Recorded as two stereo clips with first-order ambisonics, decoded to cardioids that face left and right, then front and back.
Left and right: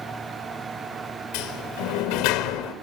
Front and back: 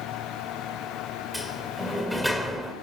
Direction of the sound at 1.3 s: 90° left.